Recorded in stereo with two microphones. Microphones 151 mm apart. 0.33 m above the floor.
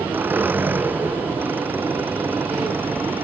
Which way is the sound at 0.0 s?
15° right (ahead or behind).